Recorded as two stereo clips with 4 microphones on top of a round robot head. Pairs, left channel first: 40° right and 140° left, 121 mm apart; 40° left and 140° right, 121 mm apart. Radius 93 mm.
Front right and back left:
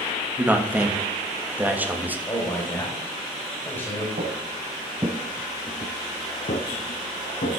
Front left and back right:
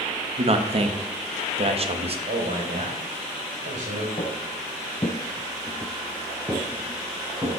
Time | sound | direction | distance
0.4 | a man speaking | 145° right | 1.4 m
2.3 | a man speaking | 110° right | 3.5 m
4.2 | footsteps | 100° left | 1.8 m